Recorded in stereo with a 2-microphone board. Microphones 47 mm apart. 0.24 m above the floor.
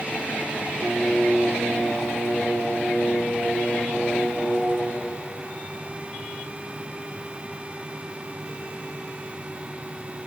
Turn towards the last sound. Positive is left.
turn(degrees=-40)  # may be behind; listen again after turning